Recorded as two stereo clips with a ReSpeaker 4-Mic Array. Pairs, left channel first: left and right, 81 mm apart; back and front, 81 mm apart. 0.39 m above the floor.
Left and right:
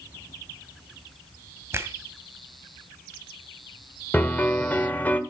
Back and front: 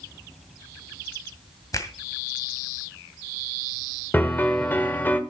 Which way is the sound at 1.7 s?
145° right.